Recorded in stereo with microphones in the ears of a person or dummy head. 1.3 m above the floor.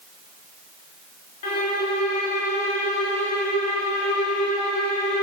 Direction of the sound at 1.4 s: 40° left (ahead or behind).